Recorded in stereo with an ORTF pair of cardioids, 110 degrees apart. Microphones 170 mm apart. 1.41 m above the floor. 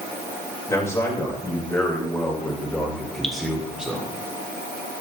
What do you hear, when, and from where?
0.7 s a man speaking: 20° left, 7.5 m; by 4.1 s 5° right, 5.5 m
3.2 s dripping: 5° left, 2.5 m